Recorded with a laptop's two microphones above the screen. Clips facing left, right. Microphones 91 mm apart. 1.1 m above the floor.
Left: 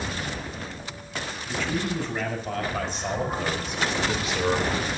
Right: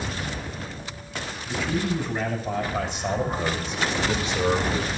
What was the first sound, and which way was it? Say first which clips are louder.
A man speaking: right 2 dB; 5° right (ahead or behind).